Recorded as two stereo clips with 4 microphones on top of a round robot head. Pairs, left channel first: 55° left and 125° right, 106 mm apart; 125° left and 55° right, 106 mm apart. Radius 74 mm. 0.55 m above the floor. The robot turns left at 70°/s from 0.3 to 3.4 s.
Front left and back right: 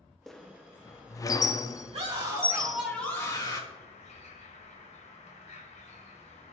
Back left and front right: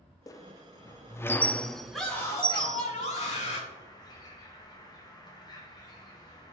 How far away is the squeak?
About 0.5 m.